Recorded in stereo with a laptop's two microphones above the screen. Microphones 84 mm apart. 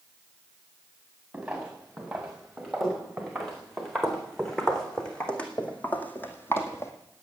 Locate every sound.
1.3 s footsteps: 5° right (ahead or behind), 6.5 m; by 6.9 s 35° left (ahead or behind), 2.5 m